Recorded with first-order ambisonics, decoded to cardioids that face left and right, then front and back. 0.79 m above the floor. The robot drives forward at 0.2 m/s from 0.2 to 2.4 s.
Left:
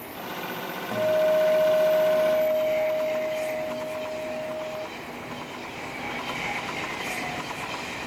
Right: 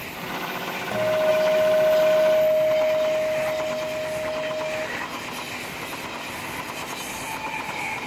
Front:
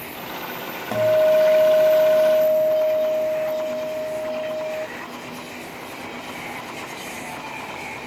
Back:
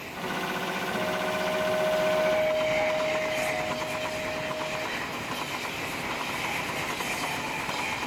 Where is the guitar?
10° right, 0.6 m; by 4.9 s 30° right, 0.5 m.